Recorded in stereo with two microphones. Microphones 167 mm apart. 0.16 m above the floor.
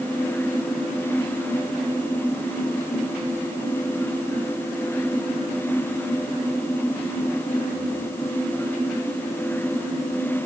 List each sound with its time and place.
Only background noise.